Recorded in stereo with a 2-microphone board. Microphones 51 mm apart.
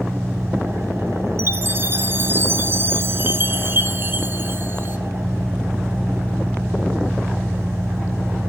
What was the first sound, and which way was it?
An engine running, 60° right (ahead or behind).